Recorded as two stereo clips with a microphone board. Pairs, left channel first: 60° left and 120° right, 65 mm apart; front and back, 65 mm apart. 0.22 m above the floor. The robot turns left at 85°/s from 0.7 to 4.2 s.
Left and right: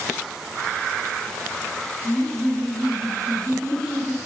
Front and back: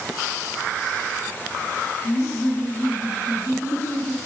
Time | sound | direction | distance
2.0 | laughter | 10° right | 2 m